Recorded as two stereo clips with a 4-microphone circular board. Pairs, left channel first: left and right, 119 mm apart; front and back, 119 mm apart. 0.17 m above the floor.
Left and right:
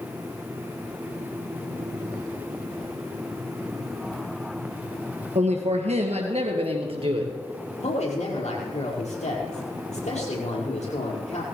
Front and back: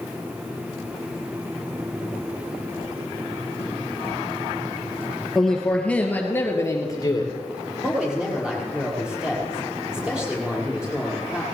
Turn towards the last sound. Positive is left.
turn(degrees=95)